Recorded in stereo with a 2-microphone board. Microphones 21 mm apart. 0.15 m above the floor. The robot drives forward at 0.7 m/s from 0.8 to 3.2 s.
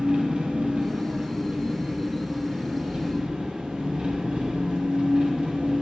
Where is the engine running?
70° right (ahead or behind), 3 m; by 5.8 s 60° right (ahead or behind), 3.5 m.